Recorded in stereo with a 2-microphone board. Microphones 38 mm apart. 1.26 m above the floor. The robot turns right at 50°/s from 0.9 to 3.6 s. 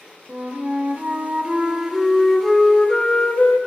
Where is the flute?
75° right, 1.1 m; by 3.6 s 60° left, 1.1 m.